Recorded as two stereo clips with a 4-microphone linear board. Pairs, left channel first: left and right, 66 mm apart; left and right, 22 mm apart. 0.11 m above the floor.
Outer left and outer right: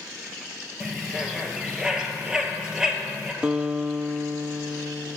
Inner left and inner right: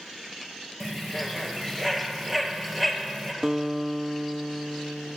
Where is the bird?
10° right (ahead or behind), 2.5 m.